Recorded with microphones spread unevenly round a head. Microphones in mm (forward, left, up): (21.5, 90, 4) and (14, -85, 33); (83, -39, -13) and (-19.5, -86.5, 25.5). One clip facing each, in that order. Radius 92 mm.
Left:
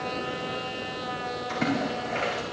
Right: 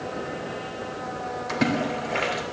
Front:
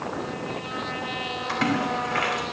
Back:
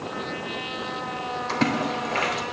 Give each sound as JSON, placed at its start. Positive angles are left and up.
{"t": 1.5, "sound": "a splash", "azimuth_deg": -110, "distance_m": 3.5}